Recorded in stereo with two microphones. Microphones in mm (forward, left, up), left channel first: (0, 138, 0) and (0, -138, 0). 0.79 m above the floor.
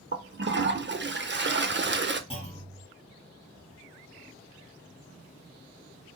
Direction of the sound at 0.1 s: 40° right (ahead or behind).